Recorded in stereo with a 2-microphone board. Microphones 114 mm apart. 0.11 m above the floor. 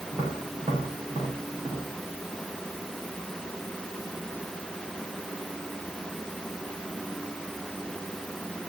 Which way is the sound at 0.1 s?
35° right (ahead or behind).